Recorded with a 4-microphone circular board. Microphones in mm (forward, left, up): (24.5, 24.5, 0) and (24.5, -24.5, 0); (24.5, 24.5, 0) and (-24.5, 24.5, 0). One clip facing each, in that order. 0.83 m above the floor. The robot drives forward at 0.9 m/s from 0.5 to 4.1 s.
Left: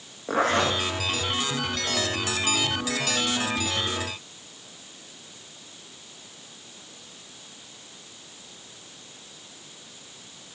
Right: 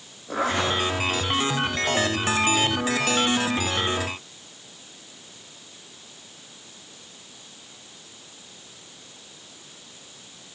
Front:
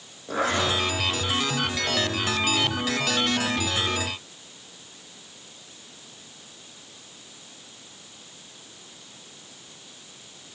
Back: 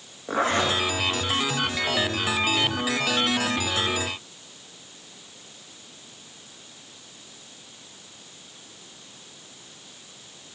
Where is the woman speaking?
No woman speaking in this recording.